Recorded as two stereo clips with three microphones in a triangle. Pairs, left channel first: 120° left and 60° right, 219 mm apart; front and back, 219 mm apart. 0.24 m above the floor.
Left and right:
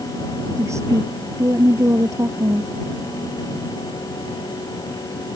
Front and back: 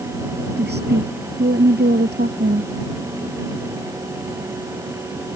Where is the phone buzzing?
No phone buzzing in this recording.